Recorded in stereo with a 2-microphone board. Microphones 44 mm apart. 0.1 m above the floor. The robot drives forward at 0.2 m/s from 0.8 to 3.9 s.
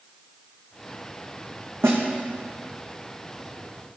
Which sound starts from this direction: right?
A snare drum, at 1.8 s.